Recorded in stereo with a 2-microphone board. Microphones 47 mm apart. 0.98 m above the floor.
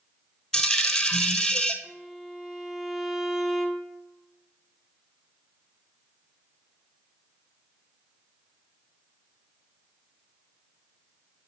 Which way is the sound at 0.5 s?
10° left (ahead or behind).